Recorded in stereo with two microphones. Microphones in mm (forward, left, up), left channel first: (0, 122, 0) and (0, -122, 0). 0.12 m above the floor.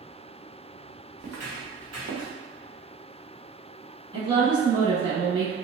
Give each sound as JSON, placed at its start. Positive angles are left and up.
{"t": 1.2, "sound": "footsteps", "side_deg": -75, "distance_m": 1.0}
{"t": 4.1, "sound": "a woman speaking", "side_deg": -20, "distance_m": 1.1}